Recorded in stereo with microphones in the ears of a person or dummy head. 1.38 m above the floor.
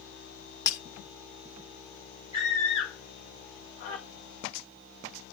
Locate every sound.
0.7 s breaking glass: 30° left (ahead or behind), 1.4 m
2.3 s a scream: 35° left (ahead or behind), 1.6 m